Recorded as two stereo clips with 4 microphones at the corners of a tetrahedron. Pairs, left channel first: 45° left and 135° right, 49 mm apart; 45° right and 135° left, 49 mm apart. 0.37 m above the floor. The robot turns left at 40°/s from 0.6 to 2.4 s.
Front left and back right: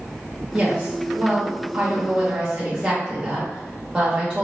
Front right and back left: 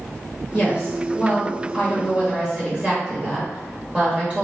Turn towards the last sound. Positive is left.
turn(degrees=160)